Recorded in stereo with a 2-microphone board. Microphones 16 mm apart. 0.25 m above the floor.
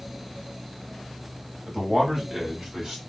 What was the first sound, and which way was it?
A man speaking, 40° right (ahead or behind).